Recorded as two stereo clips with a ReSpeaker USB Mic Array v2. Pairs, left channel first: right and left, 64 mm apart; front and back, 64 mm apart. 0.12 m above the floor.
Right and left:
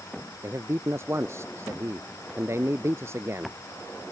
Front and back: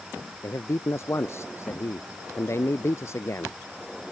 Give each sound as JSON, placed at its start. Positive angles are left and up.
{"t": 0.4, "sound": "a man speaking", "azimuth_deg": 45}